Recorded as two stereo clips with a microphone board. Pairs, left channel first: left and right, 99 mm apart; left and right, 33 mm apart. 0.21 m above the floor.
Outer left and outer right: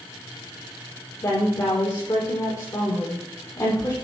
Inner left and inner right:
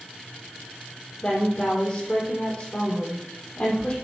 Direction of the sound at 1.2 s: 35° left (ahead or behind).